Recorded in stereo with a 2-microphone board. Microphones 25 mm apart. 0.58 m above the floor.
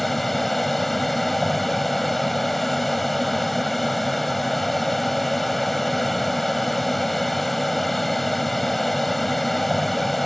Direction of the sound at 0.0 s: 5° left (ahead or behind).